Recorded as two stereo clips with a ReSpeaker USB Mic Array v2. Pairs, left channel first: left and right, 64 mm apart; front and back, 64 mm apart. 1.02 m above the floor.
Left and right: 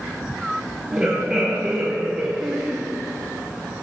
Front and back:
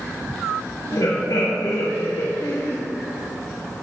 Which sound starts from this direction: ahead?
Laughter, at 0.9 s.